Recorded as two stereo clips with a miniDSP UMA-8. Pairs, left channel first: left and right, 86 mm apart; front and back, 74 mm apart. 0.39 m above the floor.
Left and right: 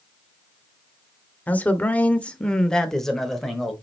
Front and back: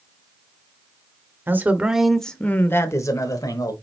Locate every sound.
1.5 s a man speaking: 145° left, 1.0 m; by 3.7 s straight ahead, 1.5 m